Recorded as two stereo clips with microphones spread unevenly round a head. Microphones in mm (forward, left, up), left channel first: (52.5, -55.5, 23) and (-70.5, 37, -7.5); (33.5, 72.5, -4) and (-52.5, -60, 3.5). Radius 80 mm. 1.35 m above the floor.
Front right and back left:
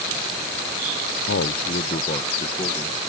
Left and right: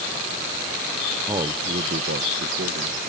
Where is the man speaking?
45° right; by 3.1 s 100° right.